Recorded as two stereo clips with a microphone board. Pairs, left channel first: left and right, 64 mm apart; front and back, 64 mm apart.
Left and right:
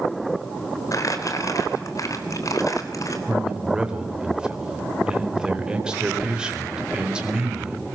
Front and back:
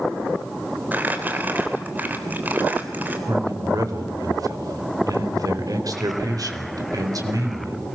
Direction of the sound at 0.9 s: 120° left.